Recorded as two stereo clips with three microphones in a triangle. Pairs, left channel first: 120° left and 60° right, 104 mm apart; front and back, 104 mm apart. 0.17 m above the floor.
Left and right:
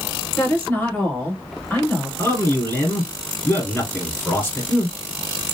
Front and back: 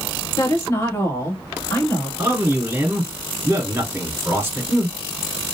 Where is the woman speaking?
55° left, 1.7 m.